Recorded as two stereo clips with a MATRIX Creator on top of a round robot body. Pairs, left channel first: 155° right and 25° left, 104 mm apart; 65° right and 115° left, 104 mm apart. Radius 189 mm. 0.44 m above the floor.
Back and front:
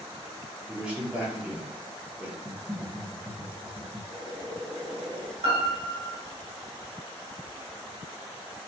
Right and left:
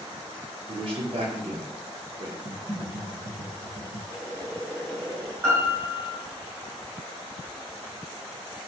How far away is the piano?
About 2.5 m.